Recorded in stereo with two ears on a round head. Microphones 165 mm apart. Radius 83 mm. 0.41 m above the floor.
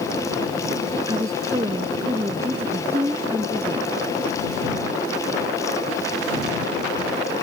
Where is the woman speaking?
20° right (ahead or behind); by 4.0 s 10° right (ahead or behind).